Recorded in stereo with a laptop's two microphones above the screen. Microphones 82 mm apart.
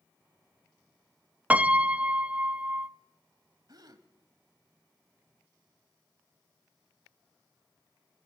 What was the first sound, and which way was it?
A piano, 20° right (ahead or behind).